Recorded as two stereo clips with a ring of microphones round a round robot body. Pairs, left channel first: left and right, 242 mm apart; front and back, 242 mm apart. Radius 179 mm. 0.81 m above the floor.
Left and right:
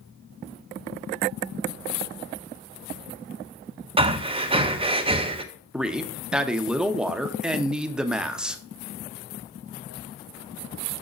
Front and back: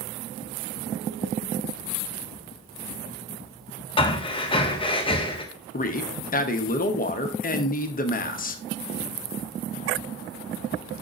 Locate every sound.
4.0 s breathing: 45° right, 0.7 m
5.7 s a man speaking: 5° right, 0.8 m